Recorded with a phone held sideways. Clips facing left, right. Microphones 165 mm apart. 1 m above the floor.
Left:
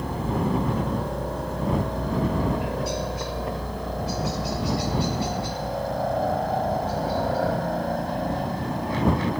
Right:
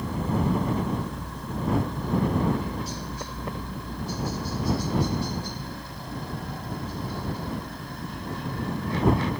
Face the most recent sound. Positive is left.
turn(degrees=75)  # may be behind; listen again after turning